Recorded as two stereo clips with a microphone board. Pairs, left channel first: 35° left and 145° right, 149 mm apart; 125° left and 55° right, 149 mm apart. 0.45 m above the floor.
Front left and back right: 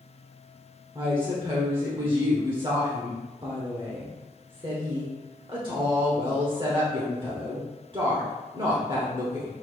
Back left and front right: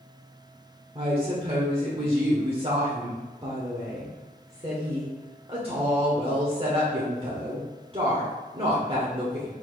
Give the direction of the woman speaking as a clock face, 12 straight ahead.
3 o'clock.